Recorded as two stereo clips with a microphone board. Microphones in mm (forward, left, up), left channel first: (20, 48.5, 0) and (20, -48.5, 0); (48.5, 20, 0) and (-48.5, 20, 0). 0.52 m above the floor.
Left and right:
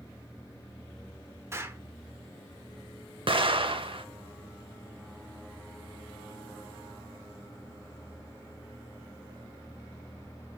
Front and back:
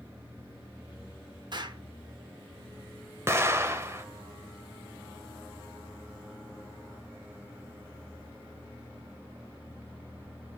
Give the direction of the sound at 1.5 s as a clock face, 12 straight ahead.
5 o'clock.